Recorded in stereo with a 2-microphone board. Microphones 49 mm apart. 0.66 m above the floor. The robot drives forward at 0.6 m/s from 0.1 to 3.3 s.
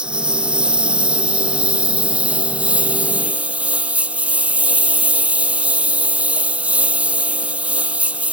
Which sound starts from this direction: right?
A lawn mower, at 0.0 s.